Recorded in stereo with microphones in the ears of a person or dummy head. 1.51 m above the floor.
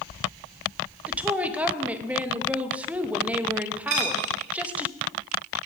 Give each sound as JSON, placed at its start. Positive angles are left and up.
{"t": 1.1, "sound": "a woman speaking", "side_deg": -10, "distance_m": 0.8}
{"t": 3.9, "sound": "a dropped coin", "side_deg": -45, "distance_m": 1.3}